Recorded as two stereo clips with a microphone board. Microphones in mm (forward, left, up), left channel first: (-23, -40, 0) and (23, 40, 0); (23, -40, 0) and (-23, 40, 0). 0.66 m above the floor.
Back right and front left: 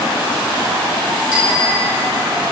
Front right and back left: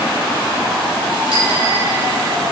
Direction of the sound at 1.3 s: 135° left.